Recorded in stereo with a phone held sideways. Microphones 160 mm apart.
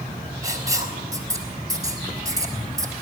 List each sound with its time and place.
0.4 s writing: 20° right (ahead or behind), 3.5 m